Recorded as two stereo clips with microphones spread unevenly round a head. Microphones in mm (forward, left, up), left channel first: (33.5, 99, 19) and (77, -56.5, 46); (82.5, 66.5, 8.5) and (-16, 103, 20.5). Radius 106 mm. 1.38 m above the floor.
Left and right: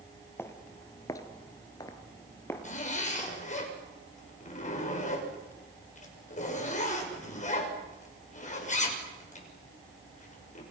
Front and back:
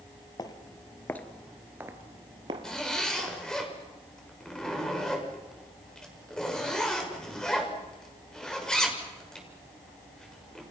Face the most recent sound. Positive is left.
turn(degrees=65)